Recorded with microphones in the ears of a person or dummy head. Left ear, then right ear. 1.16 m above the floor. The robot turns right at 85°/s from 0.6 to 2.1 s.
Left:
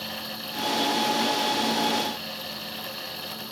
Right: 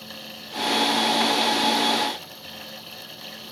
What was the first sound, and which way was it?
Only background noise.